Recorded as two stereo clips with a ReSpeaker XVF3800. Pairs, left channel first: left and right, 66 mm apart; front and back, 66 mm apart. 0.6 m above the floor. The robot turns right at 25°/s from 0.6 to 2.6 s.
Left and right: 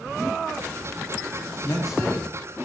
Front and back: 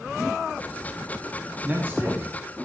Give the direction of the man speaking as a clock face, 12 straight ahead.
8 o'clock.